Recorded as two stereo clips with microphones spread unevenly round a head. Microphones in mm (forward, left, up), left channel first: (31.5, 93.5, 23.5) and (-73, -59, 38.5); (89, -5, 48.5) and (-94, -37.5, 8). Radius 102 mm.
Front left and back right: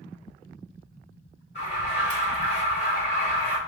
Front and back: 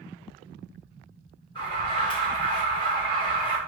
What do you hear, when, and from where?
1.6 s an alarm: 80° left, 5 m